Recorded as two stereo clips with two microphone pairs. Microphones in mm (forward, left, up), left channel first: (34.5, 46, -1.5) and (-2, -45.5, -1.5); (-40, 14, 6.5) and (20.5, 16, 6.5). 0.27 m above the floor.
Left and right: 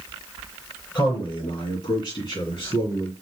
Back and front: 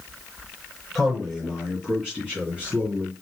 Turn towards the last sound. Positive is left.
turn(degrees=60)